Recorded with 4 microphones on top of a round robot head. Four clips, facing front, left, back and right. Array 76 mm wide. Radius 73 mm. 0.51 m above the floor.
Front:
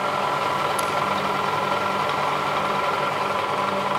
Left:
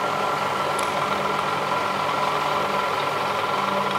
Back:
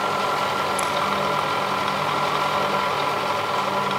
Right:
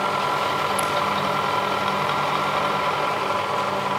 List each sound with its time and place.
0.8 s scissors: 65° right, 3.5 m